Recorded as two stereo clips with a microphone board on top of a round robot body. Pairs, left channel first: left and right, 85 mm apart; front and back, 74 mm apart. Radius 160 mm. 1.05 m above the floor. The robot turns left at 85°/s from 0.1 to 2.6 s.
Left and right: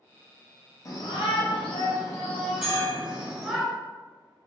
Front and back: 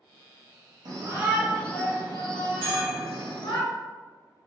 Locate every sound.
0.8 s a shout: 145° left, 1.0 m; by 3.6 s 5° right, 1.0 m
2.6 s a bell: 165° left, 1.8 m